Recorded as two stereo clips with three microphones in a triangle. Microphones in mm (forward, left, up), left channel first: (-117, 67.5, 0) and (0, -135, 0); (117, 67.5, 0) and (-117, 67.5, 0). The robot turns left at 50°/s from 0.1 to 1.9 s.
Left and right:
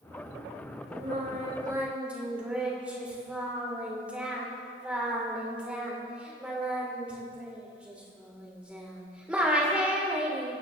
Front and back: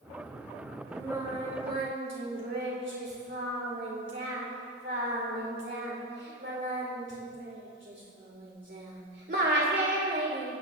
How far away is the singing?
About 3.5 m.